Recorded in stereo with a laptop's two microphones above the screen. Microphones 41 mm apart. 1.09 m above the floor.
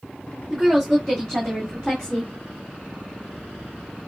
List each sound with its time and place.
0.5 s a woman speaking: 5° left (ahead or behind), 2.5 m; by 2.3 s 15° left (ahead or behind), 1.3 m